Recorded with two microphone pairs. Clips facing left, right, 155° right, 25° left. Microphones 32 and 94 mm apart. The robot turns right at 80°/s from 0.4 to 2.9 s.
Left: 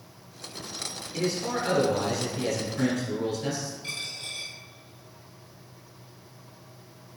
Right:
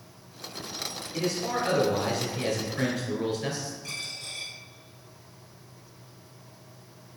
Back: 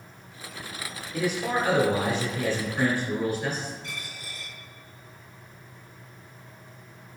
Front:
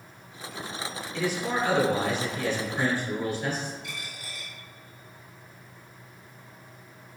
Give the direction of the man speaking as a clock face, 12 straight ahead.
7 o'clock.